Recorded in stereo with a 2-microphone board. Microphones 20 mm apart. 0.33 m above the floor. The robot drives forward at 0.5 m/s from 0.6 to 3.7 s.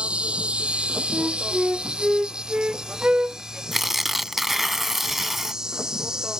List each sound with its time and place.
0.0 s an insect: 80° right; by 6.4 s 30° right (ahead or behind)
1.1 s a flute: 55° right (ahead or behind); by 3.6 s 60° right (ahead or behind)
3.7 s tearing paper: 10° right (ahead or behind)